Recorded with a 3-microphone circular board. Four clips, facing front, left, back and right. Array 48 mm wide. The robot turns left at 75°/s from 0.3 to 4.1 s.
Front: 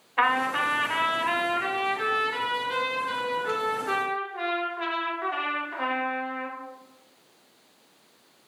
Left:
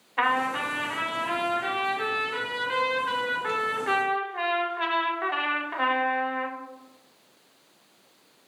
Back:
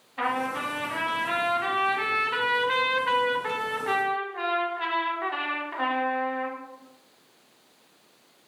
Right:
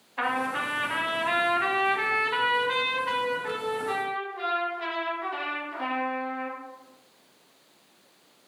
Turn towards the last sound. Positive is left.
turn(degrees=100)